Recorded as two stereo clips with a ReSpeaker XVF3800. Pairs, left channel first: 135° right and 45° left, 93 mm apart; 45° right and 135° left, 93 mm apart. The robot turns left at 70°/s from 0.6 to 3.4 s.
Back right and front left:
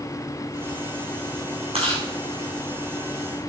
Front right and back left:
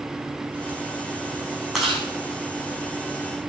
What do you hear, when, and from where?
1.7 s chewing: 50° left, 5 m; by 2.0 s 30° left, 5 m